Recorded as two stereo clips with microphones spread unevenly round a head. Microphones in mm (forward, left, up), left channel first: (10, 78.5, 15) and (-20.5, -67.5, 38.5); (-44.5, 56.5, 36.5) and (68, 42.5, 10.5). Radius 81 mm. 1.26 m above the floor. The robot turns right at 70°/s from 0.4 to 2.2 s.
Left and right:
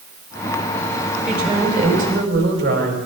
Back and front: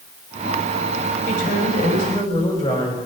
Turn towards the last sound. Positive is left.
turn(degrees=-130)